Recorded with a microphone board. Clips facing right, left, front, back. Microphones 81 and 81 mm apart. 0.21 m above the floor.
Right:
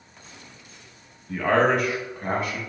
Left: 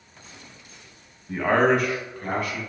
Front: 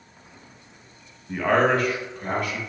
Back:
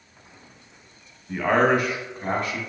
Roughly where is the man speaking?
Left.